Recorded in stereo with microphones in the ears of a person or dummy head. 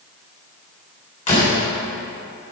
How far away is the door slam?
About 4 m.